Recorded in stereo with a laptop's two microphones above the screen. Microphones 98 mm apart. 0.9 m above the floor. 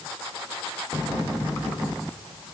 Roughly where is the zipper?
No zipper in this recording.